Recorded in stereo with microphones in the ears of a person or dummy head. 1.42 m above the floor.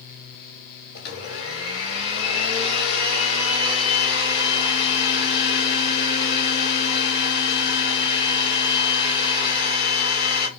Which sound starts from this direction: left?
A blender, at 0.9 s.